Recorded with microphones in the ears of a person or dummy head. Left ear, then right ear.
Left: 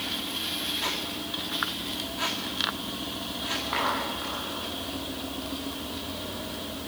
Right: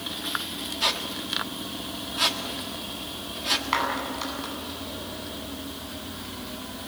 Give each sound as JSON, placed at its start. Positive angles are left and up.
{"t": 0.8, "sound": "a squeak", "side_deg": -35, "distance_m": 1.6}
{"t": 3.7, "sound": "a clap", "side_deg": -45, "distance_m": 9.5}